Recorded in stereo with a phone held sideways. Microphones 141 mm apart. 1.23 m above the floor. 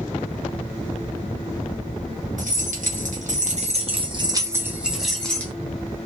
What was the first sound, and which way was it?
Keys jangling, 65° right (ahead or behind).